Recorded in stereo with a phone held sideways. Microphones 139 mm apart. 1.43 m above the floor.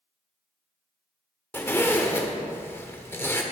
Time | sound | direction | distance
1.5 | a zipper | 15° left (ahead or behind) | 1.1 m